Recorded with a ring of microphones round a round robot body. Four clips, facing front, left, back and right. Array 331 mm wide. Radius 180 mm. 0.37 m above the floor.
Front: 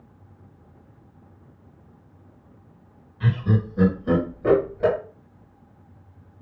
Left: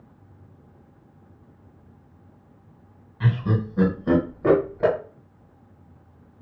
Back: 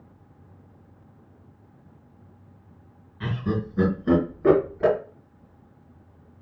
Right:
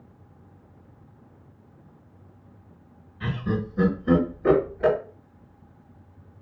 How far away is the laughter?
About 2.0 m.